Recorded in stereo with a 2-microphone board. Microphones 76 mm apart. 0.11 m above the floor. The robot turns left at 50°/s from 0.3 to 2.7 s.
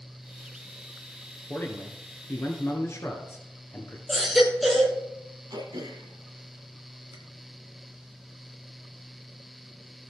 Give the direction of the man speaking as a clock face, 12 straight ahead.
8 o'clock.